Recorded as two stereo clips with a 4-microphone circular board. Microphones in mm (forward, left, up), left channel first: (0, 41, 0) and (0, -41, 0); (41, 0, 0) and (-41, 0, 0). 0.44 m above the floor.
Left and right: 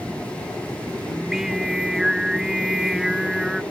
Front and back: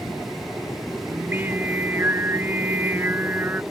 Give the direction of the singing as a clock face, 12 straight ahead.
6 o'clock.